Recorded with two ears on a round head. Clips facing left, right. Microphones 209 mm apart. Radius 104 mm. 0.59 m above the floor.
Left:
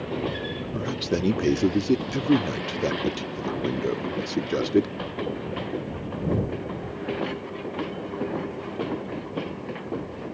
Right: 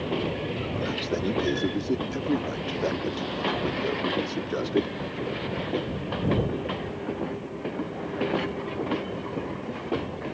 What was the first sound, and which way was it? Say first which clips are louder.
A man speaking: left 4 dB; 35° left (ahead or behind).